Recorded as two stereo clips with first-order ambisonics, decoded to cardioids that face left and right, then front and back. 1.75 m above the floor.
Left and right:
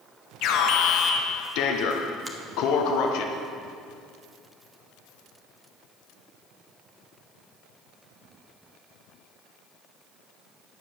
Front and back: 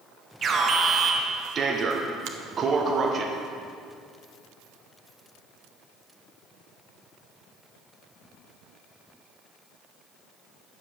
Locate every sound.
0.4 s an alarm: 115° left, 1.0 m
2.2 s a finger snap: 170° right, 1.1 m